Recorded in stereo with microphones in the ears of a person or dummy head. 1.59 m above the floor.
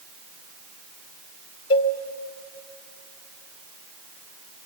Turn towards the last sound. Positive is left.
turn(degrees=20)  # may be behind; listen again after turning